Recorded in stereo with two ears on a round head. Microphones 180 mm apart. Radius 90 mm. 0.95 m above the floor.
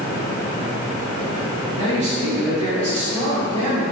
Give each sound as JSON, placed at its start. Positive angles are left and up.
{"t": 1.8, "sound": "a man speaking", "side_deg": -35, "distance_m": 1.1}